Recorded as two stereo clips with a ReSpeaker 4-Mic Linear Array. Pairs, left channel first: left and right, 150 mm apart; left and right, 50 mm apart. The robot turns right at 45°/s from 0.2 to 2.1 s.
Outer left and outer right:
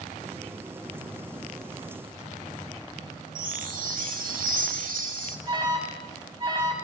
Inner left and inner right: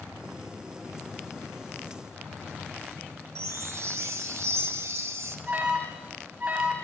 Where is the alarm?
35° right (ahead or behind), 1.5 m.